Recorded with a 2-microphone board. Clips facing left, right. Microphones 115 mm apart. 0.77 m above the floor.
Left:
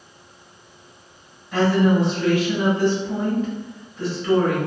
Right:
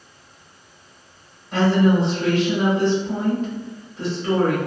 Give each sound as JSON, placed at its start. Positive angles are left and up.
{"t": 1.5, "sound": "a woman speaking", "side_deg": -25, "distance_m": 1.0}